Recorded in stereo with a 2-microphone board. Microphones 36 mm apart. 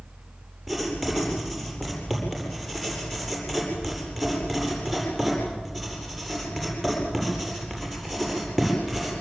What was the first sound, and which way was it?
Writing, centre (ahead or behind).